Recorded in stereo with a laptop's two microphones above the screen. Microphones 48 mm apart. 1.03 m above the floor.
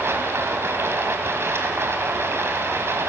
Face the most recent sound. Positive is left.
turn(degrees=-80)